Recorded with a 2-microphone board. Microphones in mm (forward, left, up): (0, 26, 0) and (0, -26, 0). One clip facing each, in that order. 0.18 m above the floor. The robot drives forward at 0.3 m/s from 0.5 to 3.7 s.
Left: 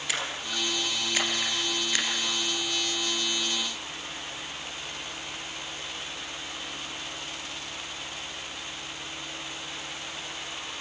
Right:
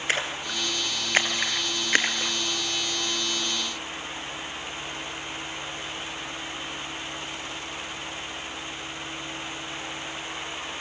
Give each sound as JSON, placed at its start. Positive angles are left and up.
{"t": 0.1, "sound": "a splash", "side_deg": -45, "distance_m": 3.0}